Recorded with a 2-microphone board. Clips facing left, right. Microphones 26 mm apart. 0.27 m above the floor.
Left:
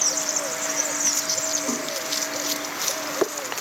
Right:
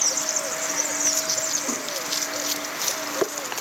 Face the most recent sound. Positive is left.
turn(degrees=35)  # may be behind; listen again after turning